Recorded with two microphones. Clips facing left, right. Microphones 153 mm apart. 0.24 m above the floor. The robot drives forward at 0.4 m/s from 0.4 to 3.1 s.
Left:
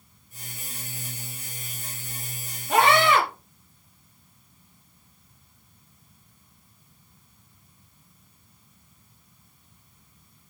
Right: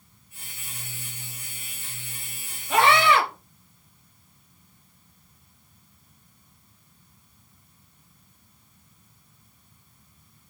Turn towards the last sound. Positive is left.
turn(degrees=50)  # may be behind; listen again after turning